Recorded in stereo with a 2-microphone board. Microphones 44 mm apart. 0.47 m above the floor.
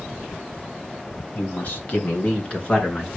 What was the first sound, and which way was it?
A man speaking, 50° left (ahead or behind).